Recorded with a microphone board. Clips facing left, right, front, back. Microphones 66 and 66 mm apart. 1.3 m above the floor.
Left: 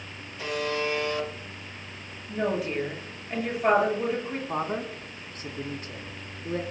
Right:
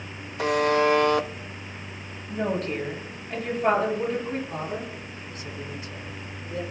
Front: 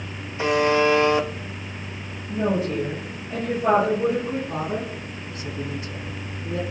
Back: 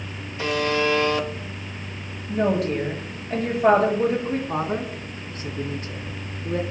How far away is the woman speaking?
About 7.5 m.